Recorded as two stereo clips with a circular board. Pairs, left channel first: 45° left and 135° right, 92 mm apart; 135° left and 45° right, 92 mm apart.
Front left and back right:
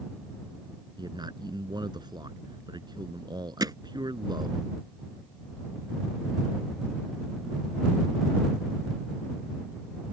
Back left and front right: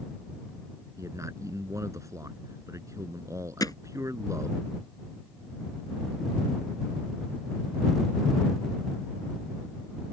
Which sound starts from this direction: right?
A man speaking, at 1.0 s.